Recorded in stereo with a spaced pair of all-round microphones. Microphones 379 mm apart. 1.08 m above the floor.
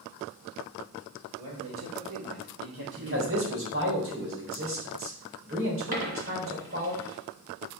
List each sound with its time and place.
1.4 s a man speaking: 75° right (ahead or behind), 3 m; by 3.5 s 35° right (ahead or behind), 1.3 m
3.0 s a man speaking: 35° right (ahead or behind), 3.5 m
5.9 s a dropped coin: 75° right (ahead or behind), 3 m